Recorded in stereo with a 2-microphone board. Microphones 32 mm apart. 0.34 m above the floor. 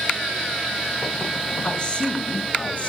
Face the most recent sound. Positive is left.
turn(degrees=50)  # may be behind; listen again after turning